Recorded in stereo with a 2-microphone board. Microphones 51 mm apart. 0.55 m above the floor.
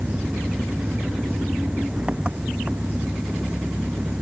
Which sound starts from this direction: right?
An engine running, at 0.0 s.